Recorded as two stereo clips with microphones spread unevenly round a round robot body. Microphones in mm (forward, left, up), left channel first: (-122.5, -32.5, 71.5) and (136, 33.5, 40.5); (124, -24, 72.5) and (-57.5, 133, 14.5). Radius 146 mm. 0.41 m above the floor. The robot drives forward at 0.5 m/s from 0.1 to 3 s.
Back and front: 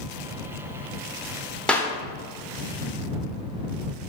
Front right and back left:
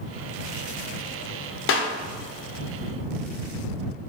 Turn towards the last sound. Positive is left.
turn(degrees=-130)